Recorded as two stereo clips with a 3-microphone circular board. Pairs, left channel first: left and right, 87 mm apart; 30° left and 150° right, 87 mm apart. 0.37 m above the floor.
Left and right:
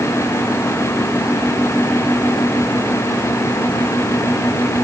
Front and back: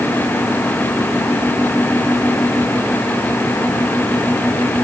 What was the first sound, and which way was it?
Only background noise.